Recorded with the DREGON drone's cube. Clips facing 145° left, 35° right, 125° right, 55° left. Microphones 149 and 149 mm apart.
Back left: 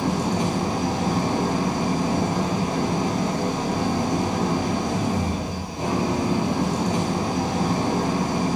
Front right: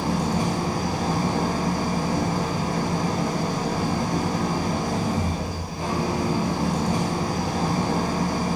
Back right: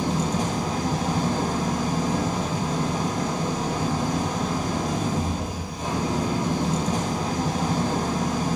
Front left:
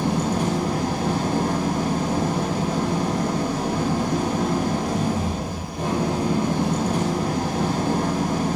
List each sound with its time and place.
0.0 s an engine running: 80° left, 1.8 m